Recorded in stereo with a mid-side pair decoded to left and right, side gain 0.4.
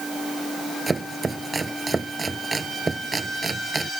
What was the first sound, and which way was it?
Chopping, 25° right.